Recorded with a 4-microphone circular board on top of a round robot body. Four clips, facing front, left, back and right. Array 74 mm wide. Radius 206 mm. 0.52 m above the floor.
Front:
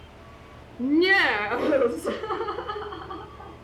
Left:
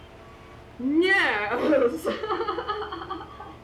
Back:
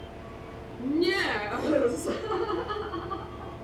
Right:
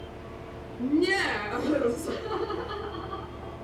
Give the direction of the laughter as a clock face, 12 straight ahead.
11 o'clock.